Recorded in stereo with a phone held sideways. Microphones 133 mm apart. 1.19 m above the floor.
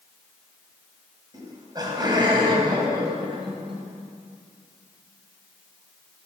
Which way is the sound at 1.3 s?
30° right (ahead or behind).